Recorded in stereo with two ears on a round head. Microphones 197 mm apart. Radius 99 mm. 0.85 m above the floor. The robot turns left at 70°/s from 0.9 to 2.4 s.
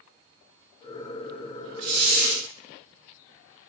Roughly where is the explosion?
No explosion in this recording.